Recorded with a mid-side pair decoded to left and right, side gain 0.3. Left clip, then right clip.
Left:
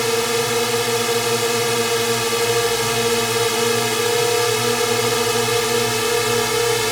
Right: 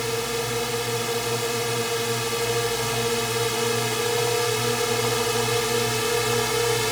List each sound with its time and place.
0.0 s a drone: 70° left; by 6.9 s 45° left